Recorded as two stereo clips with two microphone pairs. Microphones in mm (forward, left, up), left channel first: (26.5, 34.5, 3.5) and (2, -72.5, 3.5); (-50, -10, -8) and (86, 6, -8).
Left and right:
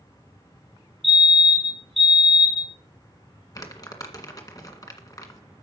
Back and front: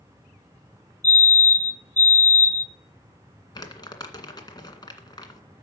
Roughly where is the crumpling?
Behind left.